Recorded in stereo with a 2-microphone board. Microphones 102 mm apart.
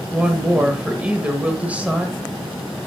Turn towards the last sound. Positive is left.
turn(degrees=-15)  # may be behind; listen again after turning